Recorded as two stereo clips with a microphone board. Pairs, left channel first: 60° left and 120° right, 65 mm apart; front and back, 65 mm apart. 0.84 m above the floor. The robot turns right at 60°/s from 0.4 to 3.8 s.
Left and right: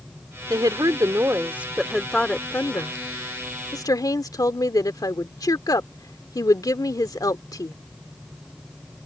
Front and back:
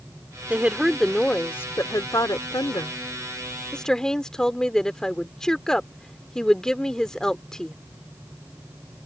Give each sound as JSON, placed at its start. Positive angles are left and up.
{"t": 0.5, "sound": "a woman speaking", "azimuth_deg": -120}